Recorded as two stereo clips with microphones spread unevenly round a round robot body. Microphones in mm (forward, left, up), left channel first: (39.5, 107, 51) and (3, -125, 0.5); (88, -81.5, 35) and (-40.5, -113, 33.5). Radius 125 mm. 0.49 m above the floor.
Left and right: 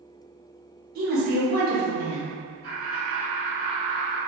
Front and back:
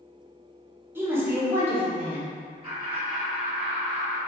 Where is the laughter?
100° right, 1.8 m.